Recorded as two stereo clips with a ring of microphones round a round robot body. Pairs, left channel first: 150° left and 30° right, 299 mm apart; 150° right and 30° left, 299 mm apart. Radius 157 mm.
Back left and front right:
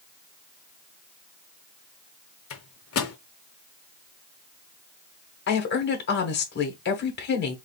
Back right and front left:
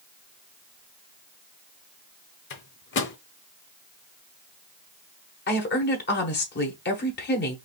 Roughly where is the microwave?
Behind.